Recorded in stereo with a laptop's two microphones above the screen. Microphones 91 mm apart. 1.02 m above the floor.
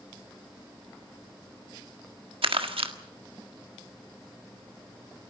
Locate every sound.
2.4 s crumpling: 90° right, 1.5 m